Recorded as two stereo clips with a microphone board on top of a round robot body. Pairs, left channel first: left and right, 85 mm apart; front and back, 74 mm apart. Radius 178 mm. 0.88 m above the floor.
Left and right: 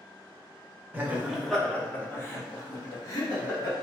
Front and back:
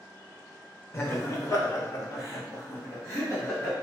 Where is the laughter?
40° right, 1.0 m; by 3.7 s 55° left, 2 m.